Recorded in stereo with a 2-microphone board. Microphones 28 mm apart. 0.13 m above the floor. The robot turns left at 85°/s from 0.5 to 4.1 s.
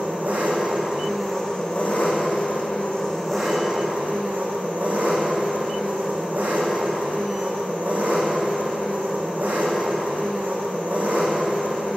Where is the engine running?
115° right, 3.5 m; by 12.0 s 60° right, 3.5 m.